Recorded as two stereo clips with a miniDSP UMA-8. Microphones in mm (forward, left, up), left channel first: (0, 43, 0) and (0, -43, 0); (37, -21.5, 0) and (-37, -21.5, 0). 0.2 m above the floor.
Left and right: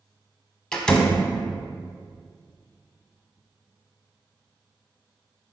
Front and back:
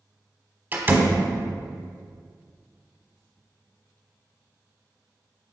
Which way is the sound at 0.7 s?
165° left.